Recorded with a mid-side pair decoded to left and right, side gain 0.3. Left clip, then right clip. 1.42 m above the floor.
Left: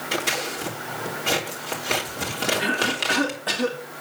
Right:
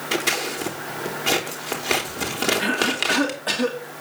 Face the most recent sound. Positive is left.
turn(degrees=-10)